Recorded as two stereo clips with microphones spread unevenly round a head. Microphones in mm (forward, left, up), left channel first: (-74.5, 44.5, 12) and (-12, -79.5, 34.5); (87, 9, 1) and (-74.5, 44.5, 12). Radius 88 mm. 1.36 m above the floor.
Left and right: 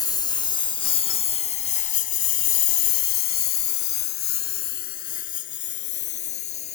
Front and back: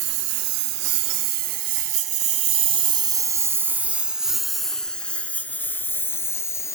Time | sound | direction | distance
0.0 | a lawn mower | straight behind | ?